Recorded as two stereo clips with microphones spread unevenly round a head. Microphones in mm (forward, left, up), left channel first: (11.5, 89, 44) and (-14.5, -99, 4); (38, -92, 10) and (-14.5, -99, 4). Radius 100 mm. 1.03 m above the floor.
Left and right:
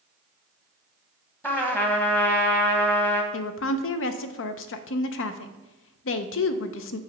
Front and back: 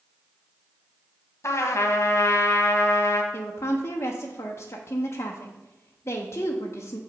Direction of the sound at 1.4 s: 5° right.